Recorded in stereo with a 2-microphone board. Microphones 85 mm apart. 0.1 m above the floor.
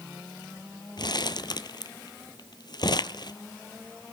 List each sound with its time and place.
1.0 s crumpling: 60° left (ahead or behind), 0.7 m